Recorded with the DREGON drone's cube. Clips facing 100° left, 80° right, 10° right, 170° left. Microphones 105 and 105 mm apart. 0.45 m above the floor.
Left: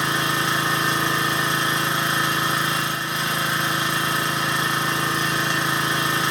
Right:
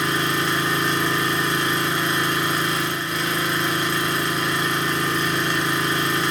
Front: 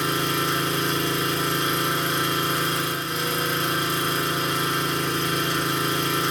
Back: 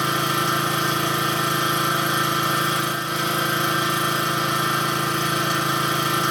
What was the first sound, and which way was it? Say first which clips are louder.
An engine running: right 1 dB, back 2 dB; 170° left.